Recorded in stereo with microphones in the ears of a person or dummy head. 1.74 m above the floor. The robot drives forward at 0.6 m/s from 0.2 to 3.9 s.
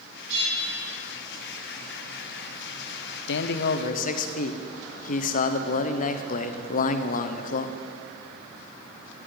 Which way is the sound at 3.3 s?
65° left (ahead or behind).